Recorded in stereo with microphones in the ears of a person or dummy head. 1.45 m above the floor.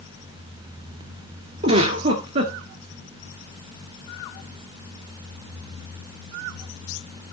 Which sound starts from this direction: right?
A giggle, at 1.6 s.